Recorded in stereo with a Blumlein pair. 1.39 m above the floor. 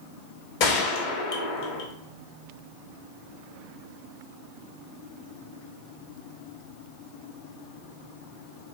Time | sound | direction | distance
0.6 | a gunshot | 45° left | 0.8 m